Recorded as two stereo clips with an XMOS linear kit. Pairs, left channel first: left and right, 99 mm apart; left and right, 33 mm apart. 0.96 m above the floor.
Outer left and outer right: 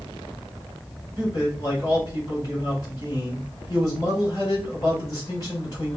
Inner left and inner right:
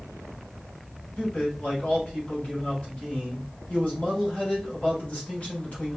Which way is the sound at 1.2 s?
40° left (ahead or behind).